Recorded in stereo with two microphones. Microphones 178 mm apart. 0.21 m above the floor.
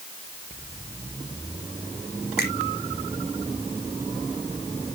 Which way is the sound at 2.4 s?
65° left (ahead or behind).